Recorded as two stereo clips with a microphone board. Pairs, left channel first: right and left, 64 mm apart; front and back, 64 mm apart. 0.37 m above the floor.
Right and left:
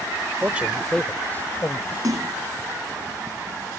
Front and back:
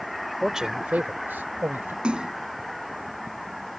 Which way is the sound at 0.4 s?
95° left.